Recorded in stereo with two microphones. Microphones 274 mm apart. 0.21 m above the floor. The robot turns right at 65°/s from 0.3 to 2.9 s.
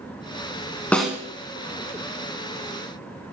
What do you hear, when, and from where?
0.9 s a snare drum: 5° left (ahead or behind), 1.1 m; by 1.2 s 10° right (ahead or behind), 1.1 m